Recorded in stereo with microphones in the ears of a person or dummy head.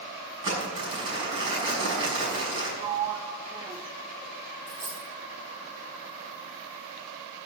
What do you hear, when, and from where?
0.4 s crumpling: 70° right (ahead or behind), 6 m
2.8 s a sliding door: 20° right (ahead or behind), 0.9 m
4.7 s a dropped coin: 60° right (ahead or behind), 5 m